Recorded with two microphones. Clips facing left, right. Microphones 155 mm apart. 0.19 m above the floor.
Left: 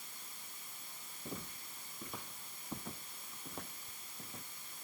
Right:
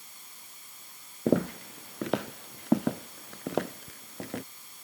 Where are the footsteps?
80° right.